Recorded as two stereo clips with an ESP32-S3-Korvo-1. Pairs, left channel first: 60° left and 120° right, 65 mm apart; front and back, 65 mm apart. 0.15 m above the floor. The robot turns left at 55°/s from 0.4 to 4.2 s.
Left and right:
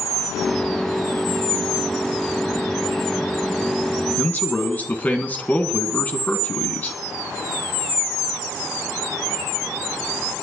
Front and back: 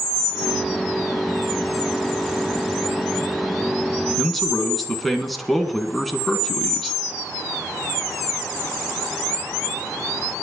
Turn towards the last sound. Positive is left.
turn(degrees=90)